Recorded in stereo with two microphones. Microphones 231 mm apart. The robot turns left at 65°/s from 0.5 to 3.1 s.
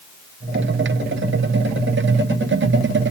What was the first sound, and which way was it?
Only background noise.